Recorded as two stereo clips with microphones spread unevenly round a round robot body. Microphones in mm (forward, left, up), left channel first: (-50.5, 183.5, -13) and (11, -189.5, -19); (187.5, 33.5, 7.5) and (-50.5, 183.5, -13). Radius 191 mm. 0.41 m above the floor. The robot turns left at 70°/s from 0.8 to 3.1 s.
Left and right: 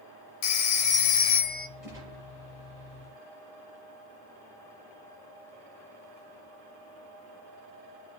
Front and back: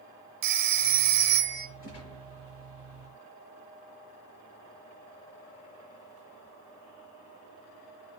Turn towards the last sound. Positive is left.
turn(degrees=-80)